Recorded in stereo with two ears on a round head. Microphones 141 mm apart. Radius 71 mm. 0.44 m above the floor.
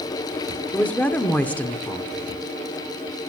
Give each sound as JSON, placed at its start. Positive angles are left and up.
{"t": 0.7, "sound": "a woman speaking", "side_deg": 10, "distance_m": 0.8}